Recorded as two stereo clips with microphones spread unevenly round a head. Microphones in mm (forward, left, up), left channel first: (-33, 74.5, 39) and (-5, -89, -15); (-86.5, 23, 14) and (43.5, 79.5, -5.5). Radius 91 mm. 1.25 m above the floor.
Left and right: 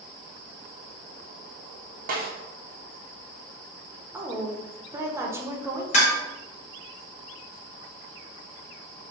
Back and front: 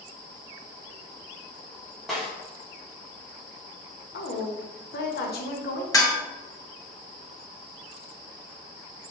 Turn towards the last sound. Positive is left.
turn(degrees=140)